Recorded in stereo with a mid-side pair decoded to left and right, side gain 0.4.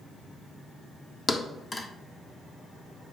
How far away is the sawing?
No sawing in this recording.